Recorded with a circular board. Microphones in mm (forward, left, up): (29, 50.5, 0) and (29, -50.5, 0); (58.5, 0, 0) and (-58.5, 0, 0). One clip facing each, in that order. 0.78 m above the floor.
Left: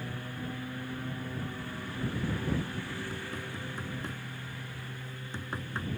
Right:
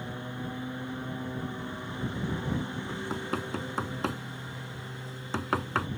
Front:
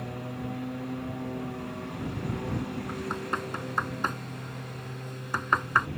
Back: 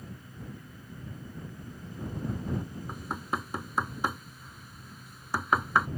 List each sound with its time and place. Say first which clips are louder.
0.0 s a lawn mower: right 2 dB, front 10 dB; 20° right
2.9 s knocking: right 5 dB, front 3 dB; 95° right